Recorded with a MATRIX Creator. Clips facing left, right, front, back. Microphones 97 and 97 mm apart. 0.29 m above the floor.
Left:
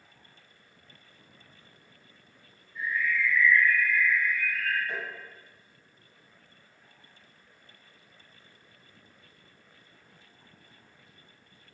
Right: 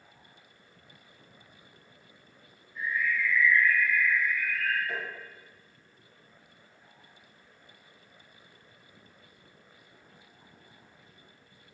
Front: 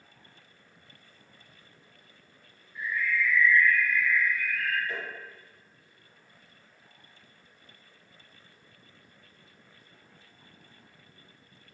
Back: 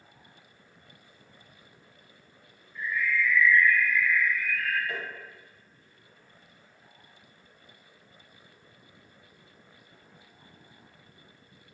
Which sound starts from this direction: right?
A bird, at 2.8 s.